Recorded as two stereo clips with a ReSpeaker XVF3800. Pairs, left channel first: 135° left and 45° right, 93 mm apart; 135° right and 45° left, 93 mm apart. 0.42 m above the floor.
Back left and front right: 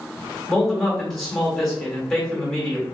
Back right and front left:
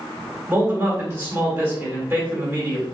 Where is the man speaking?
60° left, 1.4 m.